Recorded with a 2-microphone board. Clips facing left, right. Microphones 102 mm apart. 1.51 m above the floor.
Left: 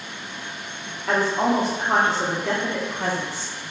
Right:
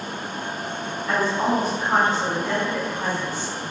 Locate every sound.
1.1 s a woman speaking: 65° left (ahead or behind), 0.9 m